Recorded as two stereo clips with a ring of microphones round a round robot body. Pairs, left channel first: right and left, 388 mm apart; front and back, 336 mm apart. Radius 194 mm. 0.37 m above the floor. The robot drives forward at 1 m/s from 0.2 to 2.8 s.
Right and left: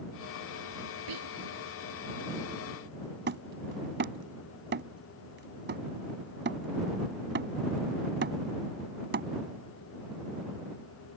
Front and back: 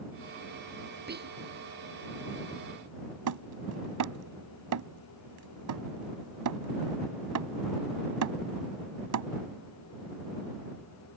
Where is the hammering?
150° left.